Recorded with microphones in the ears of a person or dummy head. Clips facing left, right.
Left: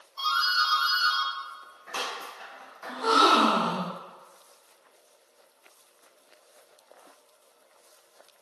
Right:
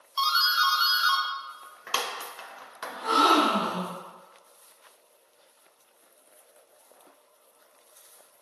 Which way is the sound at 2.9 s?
65° left (ahead or behind).